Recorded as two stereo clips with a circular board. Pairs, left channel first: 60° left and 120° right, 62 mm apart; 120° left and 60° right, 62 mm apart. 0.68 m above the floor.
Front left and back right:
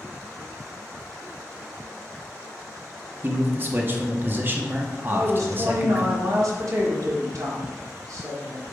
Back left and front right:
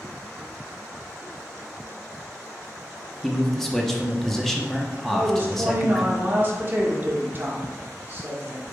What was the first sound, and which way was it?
A man speaking, 155° right.